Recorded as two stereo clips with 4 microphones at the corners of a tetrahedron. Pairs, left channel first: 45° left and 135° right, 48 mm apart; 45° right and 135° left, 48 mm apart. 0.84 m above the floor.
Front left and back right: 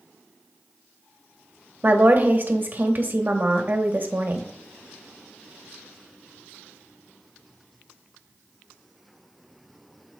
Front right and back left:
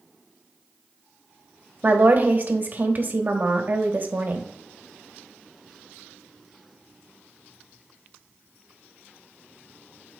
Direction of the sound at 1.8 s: Straight behind.